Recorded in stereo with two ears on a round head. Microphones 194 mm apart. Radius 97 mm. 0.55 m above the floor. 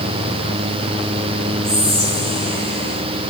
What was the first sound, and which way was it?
Whispering, 25° right (ahead or behind).